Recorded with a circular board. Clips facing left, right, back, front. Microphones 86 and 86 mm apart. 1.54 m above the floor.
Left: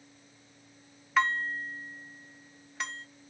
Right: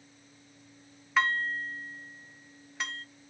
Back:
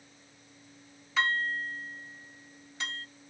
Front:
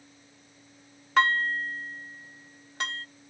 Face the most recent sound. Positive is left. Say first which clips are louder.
# even, front 6 dB
turn(degrees=0)